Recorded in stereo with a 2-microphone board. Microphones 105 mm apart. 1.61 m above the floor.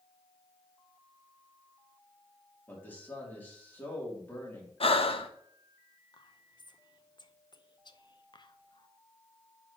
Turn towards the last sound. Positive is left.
turn(degrees=45)  # may be behind; listen again after turning